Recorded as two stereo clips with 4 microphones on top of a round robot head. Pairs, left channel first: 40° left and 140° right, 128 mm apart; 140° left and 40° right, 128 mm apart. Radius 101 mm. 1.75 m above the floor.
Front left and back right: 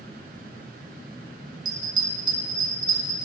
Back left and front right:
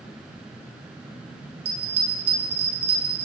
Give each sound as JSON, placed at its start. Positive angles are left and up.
{"t": 1.6, "sound": "a bell", "azimuth_deg": -80, "distance_m": 2.5}